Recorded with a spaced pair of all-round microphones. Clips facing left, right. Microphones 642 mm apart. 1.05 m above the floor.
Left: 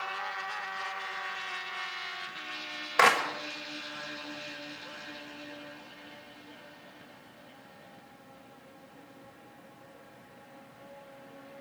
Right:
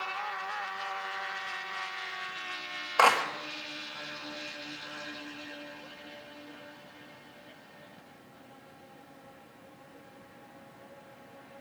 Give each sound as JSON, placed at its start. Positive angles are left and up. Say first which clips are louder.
{"t": 3.0, "sound": "a clap", "louder": "even", "side_deg": 50, "distance_m": 1.4}